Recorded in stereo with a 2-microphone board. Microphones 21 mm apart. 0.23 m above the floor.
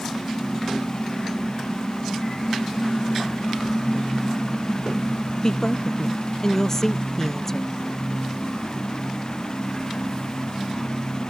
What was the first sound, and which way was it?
A woman speaking, 25° left (ahead or behind).